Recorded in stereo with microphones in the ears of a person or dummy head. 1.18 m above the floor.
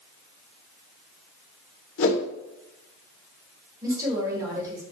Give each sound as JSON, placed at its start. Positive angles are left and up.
{"t": 2.0, "sound": "a whoosh", "side_deg": 60, "distance_m": 1.5}
{"t": 3.8, "sound": "a woman speaking", "side_deg": -20, "distance_m": 3.5}